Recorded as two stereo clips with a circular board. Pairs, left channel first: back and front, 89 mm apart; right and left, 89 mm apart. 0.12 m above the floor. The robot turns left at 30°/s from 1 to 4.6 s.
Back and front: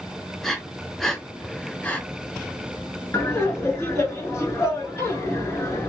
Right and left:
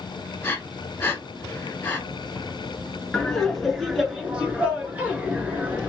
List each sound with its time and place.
0.4 s breathing: 100° right, 0.8 m; by 2.0 s 130° right, 0.8 m
3.1 s laughter: 165° right, 1.3 m; by 5.9 s 155° left, 1.3 m